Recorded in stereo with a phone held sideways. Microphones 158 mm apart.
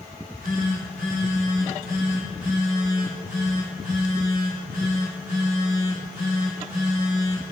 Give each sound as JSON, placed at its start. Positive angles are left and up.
{"t": 0.1, "sound": "a phone buzzing", "side_deg": -80, "distance_m": 3.5}